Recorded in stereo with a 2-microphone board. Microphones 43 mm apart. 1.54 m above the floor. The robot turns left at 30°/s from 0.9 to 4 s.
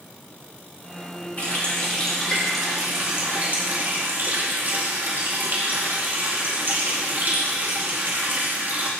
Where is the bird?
I don't hear a bird.